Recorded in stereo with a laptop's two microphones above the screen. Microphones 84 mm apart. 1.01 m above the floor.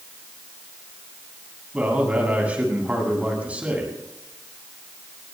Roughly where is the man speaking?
Centre.